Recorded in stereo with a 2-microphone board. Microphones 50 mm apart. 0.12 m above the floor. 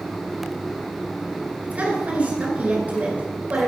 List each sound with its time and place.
1.6 s a woman speaking: 30° right (ahead or behind), 1.8 m